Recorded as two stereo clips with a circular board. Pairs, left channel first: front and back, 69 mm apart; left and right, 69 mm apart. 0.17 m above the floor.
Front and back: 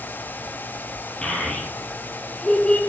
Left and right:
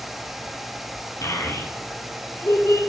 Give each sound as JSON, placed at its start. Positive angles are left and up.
{"t": 1.2, "sound": "a child speaking", "azimuth_deg": 70, "distance_m": 1.7}